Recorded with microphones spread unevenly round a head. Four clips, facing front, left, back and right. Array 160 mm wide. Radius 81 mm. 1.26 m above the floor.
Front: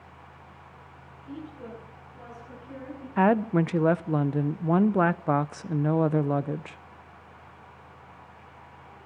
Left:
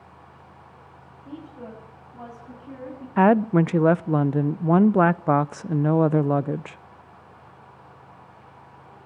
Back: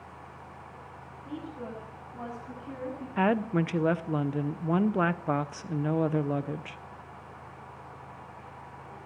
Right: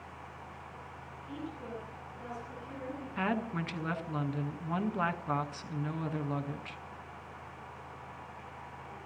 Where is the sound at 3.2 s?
75° left, 0.5 m.